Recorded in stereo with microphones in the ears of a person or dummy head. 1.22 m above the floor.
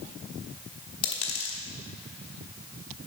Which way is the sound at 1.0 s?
35° left (ahead or behind).